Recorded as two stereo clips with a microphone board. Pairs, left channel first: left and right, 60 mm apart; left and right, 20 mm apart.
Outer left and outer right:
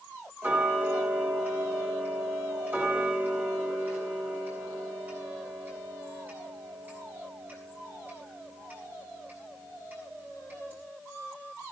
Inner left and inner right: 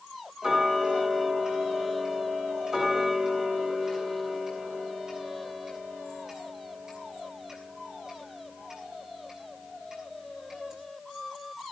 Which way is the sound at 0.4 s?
30° right (ahead or behind).